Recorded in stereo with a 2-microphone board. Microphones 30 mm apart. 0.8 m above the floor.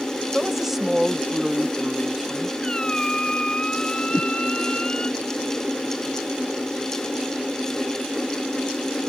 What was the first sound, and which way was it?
A woman speaking, 10° right (ahead or behind).